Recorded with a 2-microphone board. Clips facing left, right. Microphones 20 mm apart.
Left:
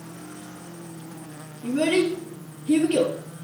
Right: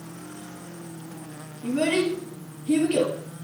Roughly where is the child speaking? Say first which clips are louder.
Left 2 dB; centre.